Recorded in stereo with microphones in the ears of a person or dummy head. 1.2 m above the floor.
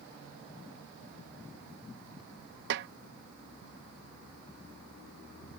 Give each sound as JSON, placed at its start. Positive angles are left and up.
{"t": 2.7, "sound": "a snare drum", "side_deg": -55}